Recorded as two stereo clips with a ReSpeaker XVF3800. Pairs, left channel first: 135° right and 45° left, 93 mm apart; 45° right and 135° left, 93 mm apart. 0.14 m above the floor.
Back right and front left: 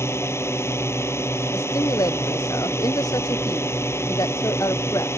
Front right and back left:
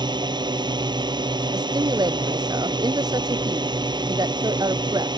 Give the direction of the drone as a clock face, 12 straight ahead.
6 o'clock.